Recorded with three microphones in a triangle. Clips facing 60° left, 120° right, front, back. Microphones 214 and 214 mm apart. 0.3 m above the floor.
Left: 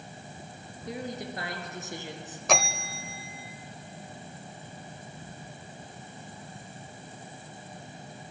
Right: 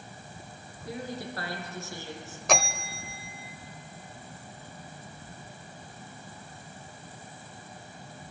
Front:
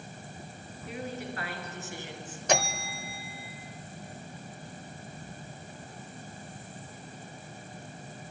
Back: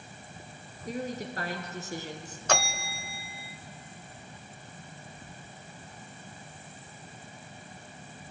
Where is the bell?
30° right, 0.7 m.